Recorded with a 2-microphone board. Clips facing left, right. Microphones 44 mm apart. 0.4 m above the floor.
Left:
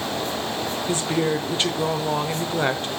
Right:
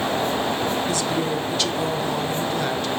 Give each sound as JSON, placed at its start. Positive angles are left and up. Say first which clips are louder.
{"t": 0.9, "sound": "a woman speaking", "louder": "even", "side_deg": 30, "distance_m": 1.1}